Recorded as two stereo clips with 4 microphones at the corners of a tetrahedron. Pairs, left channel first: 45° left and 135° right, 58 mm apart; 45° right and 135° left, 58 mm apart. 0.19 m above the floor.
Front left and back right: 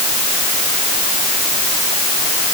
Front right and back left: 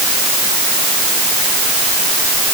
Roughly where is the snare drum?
I don't hear a snare drum.